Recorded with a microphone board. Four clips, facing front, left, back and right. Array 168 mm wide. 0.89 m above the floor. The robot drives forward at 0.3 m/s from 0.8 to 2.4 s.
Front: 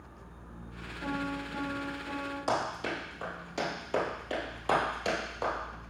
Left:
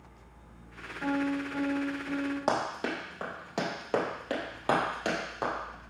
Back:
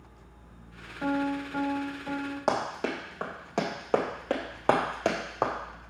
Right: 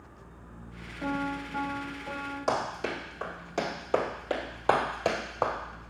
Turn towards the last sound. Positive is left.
turn(degrees=-160)